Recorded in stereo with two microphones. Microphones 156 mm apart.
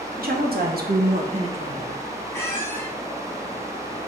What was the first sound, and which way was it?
A woman speaking, 75° right (ahead or behind).